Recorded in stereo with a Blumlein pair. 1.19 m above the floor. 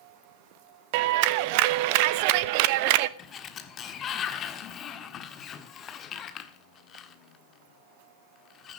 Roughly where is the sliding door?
Ahead left.